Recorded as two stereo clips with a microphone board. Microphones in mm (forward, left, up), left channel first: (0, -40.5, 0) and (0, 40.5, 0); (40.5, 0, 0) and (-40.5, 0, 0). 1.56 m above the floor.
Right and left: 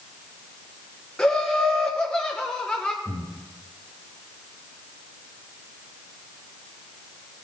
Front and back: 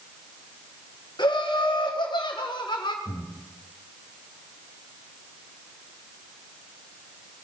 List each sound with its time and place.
1.2 s laughter: 15° right, 1.2 m
3.0 s breathing: 20° left, 1.9 m